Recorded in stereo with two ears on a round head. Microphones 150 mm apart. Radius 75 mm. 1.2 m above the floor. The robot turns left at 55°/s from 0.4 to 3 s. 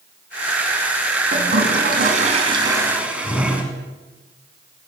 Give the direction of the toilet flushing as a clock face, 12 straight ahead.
3 o'clock.